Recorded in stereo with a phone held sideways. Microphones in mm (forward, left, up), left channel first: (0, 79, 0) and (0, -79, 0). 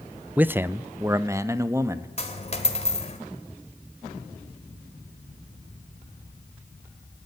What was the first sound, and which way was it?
A man speaking, 10° right (ahead or behind).